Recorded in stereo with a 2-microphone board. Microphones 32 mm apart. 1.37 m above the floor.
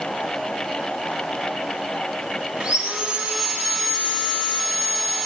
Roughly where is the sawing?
Right.